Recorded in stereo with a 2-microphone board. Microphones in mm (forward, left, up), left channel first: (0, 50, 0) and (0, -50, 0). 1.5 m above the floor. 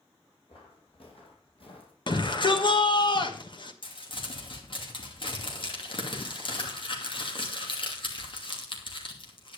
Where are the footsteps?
65° left (ahead or behind), 5 m.